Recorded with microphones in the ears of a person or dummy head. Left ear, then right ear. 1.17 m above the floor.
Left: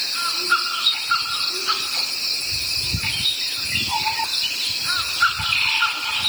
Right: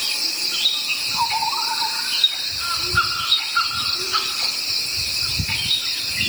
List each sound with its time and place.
Only background noise.